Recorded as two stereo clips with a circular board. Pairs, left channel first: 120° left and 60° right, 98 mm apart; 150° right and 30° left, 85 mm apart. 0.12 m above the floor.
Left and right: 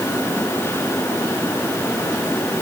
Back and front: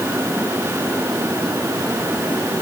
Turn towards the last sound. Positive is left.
No sound to turn to.